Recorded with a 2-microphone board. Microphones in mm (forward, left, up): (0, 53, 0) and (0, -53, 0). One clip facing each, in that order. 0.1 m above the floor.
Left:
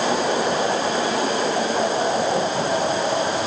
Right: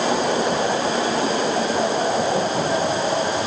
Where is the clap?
I don't hear a clap.